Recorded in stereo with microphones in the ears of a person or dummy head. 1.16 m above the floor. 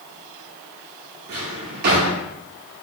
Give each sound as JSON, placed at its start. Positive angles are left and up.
{"t": 1.3, "sound": "a drawer", "side_deg": -50, "distance_m": 0.8}